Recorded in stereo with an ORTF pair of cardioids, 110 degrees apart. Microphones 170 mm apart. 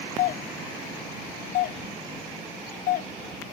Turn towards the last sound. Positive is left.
turn(degrees=60)